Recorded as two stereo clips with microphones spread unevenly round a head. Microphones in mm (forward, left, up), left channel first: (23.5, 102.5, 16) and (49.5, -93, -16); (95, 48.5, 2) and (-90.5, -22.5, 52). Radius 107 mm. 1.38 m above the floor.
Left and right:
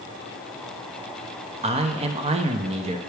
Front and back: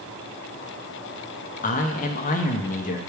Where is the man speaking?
25° right, 0.7 m.